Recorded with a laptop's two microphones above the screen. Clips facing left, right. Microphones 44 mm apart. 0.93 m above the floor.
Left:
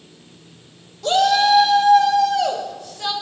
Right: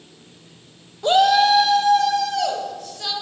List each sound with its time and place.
1.0 s a shout: 20° right (ahead or behind), 0.7 m; by 3.1 s 15° left (ahead or behind), 3 m